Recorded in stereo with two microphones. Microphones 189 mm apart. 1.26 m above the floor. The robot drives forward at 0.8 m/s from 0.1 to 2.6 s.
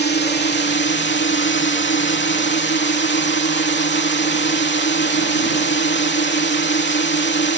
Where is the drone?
65° left (ahead or behind); by 7.6 s 70° left (ahead or behind).